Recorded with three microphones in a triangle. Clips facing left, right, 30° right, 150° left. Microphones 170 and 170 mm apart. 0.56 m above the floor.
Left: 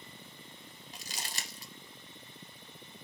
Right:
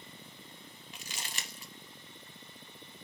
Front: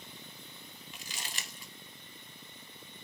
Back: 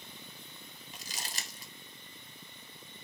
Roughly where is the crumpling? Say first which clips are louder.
Left 1 dB, back 2 dB; behind left.